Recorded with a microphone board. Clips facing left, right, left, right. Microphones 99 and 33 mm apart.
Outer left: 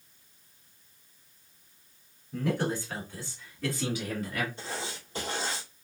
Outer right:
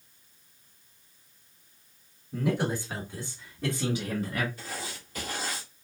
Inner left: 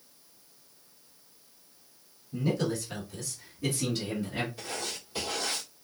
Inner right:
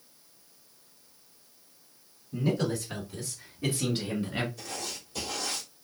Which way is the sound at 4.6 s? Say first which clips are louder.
Outer left 2 dB, inner left 2 dB; 30° left (ahead or behind).